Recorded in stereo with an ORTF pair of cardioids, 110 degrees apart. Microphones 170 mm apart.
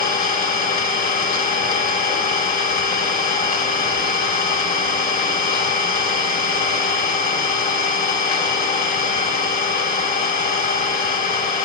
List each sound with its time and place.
0.0 s an engine running: 60° left, 2.5 m